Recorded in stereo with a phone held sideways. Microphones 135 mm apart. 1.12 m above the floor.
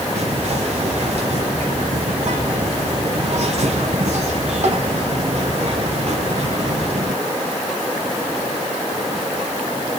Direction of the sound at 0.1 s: 55° right (ahead or behind).